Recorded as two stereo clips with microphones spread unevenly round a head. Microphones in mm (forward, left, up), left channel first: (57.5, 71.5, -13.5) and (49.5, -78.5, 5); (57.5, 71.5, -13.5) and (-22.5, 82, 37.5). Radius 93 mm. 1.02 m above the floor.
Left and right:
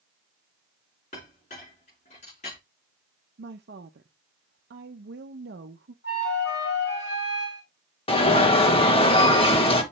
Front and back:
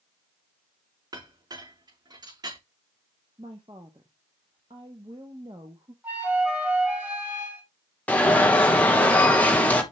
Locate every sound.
1.1 s a clink: 145° left, 6 m
3.4 s a woman speaking: 115° right, 0.7 m
6.0 s a flute: 105° left, 3.5 m
8.1 s an alarm: 40° left, 1.7 m